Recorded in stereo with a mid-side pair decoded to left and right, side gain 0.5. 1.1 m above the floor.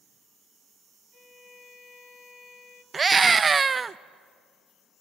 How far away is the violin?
About 3 m.